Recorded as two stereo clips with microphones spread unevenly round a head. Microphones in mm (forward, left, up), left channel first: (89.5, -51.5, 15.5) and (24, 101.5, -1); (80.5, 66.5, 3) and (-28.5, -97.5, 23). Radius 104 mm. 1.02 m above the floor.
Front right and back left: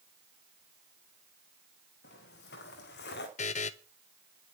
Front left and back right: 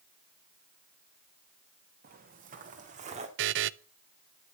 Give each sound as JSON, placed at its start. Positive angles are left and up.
{"t": 2.0, "sound": "footsteps", "azimuth_deg": -85, "distance_m": 3.0}
{"t": 3.4, "sound": "a buzzer", "azimuth_deg": -120, "distance_m": 0.6}